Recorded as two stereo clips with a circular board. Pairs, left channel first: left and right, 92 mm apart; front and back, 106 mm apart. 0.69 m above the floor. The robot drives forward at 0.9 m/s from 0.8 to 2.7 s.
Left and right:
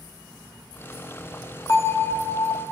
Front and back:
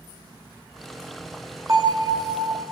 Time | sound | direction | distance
1.7 | a bell | 130° left | 0.7 m